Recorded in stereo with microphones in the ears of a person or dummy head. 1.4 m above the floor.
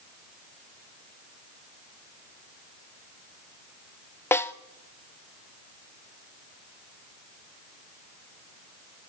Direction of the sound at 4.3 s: 15° left (ahead or behind).